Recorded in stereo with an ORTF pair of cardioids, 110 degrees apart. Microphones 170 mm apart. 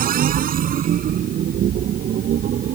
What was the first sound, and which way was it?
A machine running, 60° right.